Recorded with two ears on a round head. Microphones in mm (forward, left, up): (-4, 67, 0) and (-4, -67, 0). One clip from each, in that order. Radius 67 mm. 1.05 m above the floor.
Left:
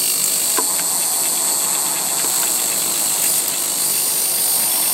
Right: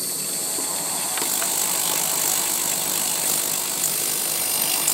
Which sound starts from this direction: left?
An insect, at 0.0 s.